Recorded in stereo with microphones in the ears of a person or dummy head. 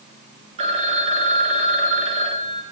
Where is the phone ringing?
35° right (ahead or behind), 0.8 m.